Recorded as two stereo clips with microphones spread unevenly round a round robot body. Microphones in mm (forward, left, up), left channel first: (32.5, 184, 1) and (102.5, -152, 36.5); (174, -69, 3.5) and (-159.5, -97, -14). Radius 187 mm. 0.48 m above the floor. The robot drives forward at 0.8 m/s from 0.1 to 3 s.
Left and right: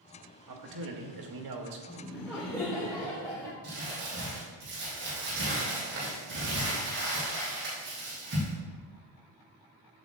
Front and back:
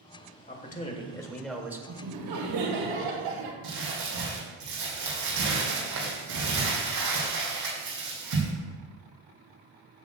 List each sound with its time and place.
0.5 s a man speaking: 55° right, 1.9 m; by 1.8 s 95° right, 1.7 m
1.9 s laughter: 170° right, 1.5 m; by 3.5 s 175° right, 2.5 m
3.6 s crumpling: 140° right, 4 m